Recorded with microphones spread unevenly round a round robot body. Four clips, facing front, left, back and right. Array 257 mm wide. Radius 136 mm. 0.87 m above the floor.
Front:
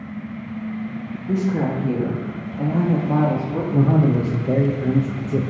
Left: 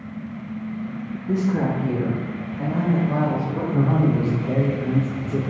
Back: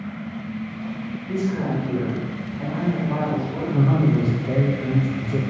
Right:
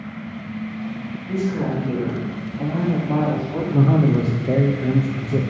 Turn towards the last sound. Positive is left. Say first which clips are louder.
# right 3 dB, front 2 dB
turn(degrees=-45)